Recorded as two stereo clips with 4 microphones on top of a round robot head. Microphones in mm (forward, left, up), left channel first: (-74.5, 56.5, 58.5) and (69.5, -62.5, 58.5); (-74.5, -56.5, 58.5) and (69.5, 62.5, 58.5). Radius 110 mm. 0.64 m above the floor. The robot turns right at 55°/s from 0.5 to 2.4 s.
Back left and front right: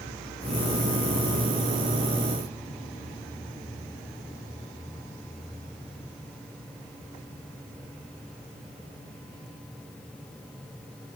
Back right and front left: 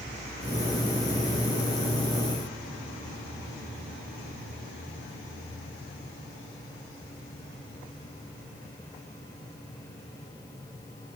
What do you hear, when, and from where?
Only background noise.